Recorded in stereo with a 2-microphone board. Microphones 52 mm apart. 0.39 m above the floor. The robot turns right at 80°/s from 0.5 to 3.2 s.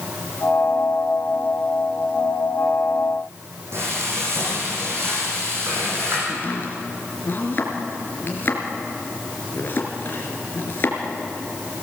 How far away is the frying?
About 7 m.